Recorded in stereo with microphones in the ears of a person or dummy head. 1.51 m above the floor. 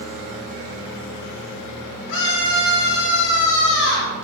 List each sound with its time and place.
2.1 s a scream: 70° left (ahead or behind), 4.5 m